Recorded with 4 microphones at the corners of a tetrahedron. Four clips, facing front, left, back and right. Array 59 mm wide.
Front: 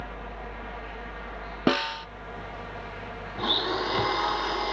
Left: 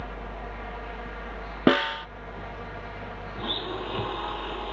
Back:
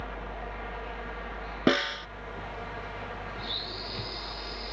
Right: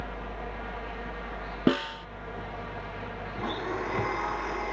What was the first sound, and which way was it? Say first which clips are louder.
A snare drum: left 5 dB, even; 100° left.